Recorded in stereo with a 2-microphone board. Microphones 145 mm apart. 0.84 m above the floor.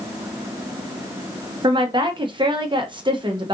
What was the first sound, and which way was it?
A woman speaking, 35° right (ahead or behind).